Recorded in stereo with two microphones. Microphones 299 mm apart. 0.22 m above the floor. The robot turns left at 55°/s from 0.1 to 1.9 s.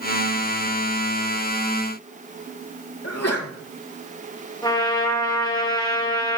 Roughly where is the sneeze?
Left.